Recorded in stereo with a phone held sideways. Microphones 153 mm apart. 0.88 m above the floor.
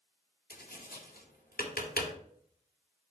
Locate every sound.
0.5 s tapping: 85° left, 2.0 m